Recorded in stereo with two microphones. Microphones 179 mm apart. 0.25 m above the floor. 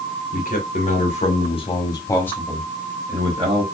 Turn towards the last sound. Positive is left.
turn(degrees=-35)  # may be behind; listen again after turning